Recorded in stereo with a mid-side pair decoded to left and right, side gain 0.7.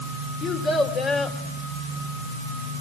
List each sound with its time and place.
0.4 s a child speaking: 45° left, 3.5 m